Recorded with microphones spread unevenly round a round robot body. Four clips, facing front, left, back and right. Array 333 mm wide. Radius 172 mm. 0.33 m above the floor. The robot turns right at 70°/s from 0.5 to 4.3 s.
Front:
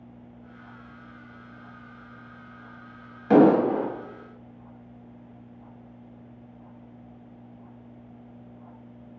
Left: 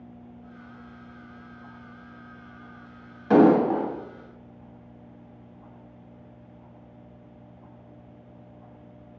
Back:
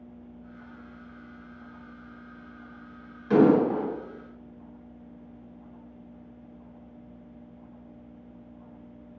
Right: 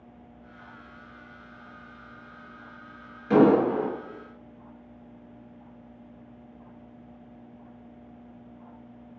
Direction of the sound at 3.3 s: 25° left.